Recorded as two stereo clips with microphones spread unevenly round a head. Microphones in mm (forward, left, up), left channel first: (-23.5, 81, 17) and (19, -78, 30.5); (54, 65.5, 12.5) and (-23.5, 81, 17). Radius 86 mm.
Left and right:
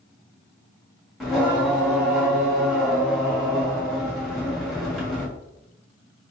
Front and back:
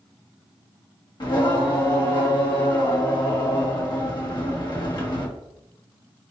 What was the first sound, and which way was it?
Singing, 15° left.